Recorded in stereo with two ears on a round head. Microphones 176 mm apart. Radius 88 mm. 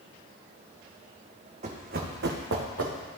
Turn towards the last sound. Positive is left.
turn(degrees=-75)  # may be behind; listen again after turning